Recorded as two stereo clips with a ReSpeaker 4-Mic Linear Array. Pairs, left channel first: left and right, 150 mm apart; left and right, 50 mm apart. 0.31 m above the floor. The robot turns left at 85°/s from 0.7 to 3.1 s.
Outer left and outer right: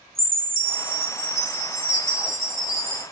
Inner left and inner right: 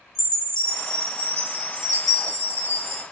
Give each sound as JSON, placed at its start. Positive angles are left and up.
{"t": 0.1, "sound": "a chime", "azimuth_deg": -75, "distance_m": 3.5}